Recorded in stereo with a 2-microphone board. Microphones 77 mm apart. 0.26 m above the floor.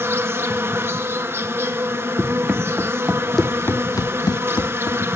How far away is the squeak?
I don't hear a squeak.